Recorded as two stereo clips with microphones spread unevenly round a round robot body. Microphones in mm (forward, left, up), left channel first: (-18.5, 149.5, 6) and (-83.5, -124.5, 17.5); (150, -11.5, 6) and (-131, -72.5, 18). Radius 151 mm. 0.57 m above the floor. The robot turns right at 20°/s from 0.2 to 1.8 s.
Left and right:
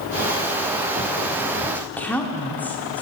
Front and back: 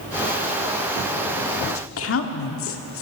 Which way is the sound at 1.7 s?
10° right.